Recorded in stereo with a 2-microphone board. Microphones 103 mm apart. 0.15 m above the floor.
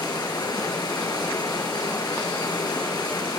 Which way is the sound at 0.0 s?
45° left (ahead or behind).